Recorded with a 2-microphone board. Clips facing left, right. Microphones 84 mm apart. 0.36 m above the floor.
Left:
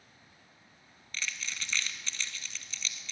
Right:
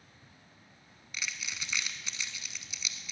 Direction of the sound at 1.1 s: 10° right (ahead or behind).